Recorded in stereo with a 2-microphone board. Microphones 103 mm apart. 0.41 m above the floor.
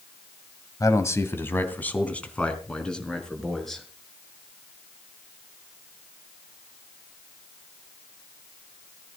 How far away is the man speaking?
About 2.0 m.